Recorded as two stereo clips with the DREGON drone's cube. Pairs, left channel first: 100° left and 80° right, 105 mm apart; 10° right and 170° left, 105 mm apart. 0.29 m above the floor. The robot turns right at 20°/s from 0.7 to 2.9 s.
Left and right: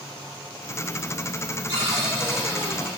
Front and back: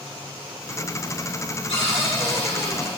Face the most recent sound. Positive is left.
turn(degrees=-5)